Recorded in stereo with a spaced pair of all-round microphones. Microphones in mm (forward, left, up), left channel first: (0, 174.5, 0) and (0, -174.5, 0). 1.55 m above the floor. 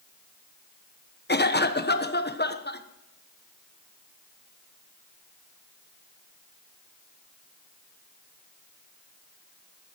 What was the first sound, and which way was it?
A cough, 30° left (ahead or behind).